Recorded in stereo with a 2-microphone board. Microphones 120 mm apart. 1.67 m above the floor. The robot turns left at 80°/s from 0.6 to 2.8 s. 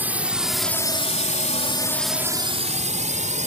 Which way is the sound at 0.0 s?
15° right (ahead or behind).